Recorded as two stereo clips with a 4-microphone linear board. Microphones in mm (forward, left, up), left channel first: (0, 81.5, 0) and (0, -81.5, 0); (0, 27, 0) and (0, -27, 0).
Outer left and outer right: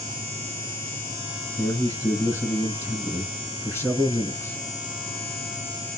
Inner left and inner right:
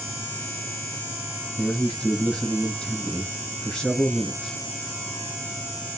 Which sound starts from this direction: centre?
A man speaking, at 1.6 s.